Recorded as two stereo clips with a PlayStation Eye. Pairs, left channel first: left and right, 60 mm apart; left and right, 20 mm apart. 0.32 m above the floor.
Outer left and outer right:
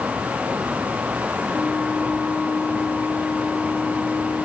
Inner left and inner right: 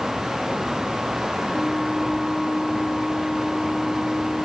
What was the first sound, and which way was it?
A flute, 25° left (ahead or behind).